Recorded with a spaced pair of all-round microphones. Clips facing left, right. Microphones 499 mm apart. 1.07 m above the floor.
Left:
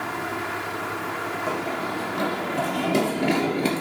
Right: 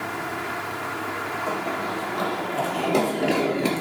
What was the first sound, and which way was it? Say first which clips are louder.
Running footsteps: even; 45° left (ahead or behind).